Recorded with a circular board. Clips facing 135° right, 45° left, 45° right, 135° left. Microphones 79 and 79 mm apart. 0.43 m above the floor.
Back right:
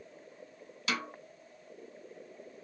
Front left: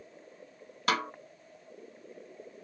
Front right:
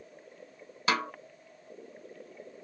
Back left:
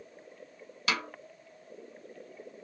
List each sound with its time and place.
0.9 s a snare drum: 10° left, 0.5 m